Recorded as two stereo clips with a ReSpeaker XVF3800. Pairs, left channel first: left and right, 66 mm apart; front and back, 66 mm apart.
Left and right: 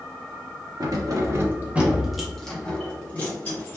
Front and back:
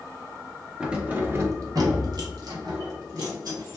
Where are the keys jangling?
105° right, 0.7 m; by 3.8 s 150° left, 1.5 m.